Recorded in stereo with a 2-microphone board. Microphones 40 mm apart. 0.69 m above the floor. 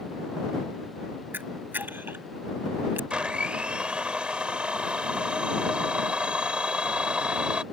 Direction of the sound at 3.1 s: 30° right (ahead or behind).